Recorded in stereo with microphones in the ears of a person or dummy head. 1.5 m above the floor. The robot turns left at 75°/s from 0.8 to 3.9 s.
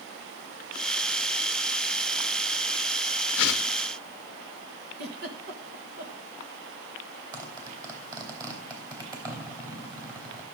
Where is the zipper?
25° right (ahead or behind), 3 m.